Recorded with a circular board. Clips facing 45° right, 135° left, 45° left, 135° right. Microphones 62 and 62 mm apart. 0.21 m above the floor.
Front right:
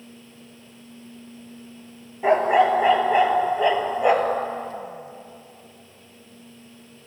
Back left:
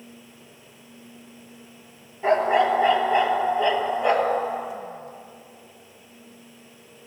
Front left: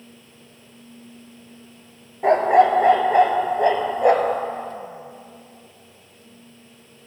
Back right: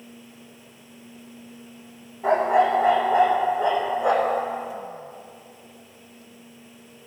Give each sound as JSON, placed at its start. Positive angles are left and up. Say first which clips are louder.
{"t": 2.2, "sound": "a dog barking", "louder": "front right 2 dB, front left 4 dB", "azimuth_deg": 30, "distance_m": 0.9}